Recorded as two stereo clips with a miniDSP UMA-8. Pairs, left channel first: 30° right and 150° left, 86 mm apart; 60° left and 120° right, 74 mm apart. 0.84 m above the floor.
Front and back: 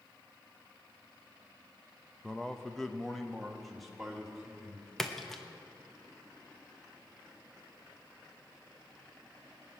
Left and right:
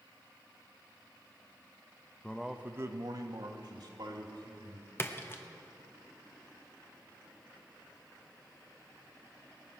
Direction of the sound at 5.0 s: 55° left.